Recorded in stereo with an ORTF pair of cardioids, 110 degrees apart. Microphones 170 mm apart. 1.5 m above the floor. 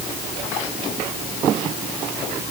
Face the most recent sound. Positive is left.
No sound to turn to.